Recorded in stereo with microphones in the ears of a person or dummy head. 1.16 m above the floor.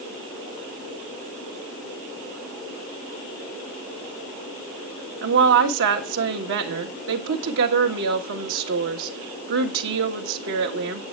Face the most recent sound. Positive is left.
turn(degrees=-65)  # may be behind; listen again after turning